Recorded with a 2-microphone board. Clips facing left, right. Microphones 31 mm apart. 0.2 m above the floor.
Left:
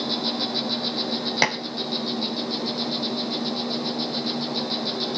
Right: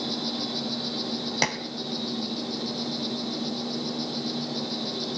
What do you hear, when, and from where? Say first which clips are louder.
0.0 s an insect: left 4 dB; 35° left (ahead or behind), 3 m
1.4 s dishes clattering: left 5 dB; 20° left (ahead or behind), 0.7 m